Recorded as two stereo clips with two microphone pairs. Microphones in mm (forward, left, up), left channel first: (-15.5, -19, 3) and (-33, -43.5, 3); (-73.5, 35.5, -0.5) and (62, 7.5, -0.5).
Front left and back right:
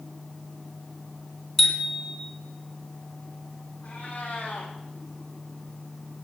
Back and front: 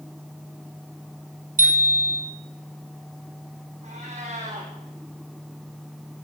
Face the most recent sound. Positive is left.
turn(degrees=25)